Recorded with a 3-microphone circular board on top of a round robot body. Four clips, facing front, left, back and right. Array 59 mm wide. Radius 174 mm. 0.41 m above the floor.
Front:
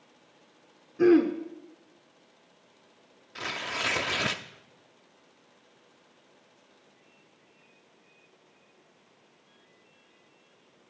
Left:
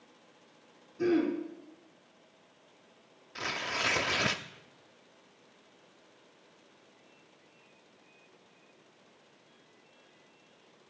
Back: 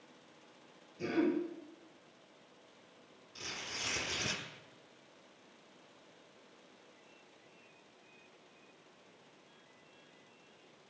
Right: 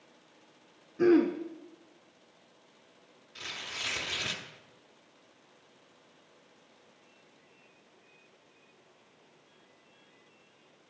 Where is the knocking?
No knocking in this recording.